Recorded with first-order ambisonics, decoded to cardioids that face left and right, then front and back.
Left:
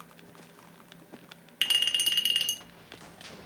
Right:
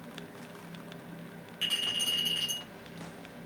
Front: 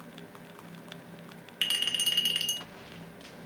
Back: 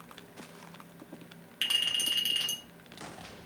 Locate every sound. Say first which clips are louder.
1.6 s a clink: left 5 dB, even; 75° left, 0.7 m